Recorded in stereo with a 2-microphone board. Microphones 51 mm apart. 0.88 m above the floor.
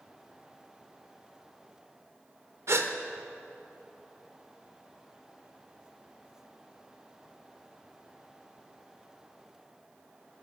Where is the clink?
No clink in this recording.